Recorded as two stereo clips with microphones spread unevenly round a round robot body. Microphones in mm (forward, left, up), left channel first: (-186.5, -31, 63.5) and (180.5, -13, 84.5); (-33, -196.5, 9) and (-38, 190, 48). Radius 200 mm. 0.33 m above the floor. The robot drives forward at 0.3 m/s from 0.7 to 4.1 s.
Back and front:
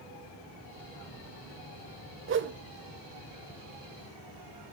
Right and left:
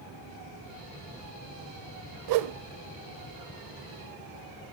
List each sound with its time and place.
2.3 s a whoosh: 55° left, 1.0 m; by 2.6 s 60° left, 0.9 m